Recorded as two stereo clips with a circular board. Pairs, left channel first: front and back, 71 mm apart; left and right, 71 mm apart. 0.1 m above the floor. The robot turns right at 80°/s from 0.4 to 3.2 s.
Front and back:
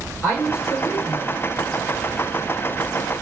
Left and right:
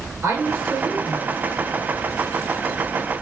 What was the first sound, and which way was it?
A woman speaking, 55° right.